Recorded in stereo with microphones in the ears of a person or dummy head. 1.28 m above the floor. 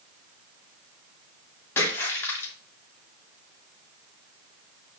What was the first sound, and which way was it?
A splash, 15° left (ahead or behind).